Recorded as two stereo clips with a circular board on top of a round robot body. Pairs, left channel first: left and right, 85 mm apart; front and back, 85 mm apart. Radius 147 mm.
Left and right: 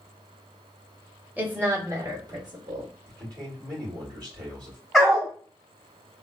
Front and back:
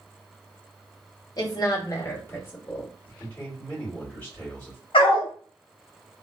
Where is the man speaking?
65° right, 1.9 m.